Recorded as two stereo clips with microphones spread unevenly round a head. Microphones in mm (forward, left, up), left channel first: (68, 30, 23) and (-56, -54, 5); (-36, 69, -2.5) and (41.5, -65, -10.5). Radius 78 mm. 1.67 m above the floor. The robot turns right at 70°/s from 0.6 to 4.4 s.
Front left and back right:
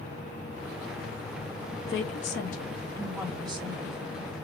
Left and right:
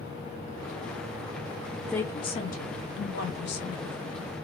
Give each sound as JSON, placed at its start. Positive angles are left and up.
{"t": 1.9, "sound": "a woman speaking", "azimuth_deg": 30, "distance_m": 0.8}